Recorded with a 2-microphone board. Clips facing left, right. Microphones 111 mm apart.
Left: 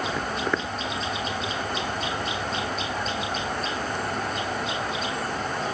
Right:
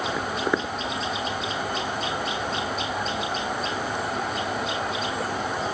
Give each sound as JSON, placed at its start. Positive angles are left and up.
{"t": 0.2, "sound": "footsteps", "side_deg": 0}